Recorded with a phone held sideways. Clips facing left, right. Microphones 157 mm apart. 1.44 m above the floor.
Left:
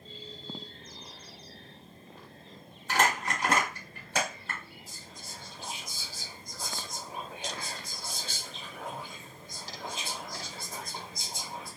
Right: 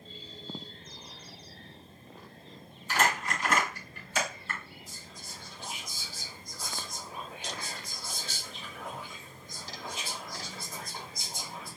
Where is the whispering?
50° left (ahead or behind), 2.0 m.